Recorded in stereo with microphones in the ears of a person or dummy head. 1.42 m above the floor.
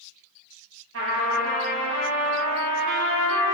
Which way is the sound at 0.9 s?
65° right (ahead or behind).